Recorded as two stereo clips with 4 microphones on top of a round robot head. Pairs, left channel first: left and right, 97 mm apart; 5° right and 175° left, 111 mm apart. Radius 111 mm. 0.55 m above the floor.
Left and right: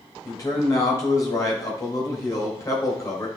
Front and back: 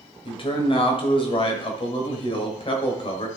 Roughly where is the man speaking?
Ahead left.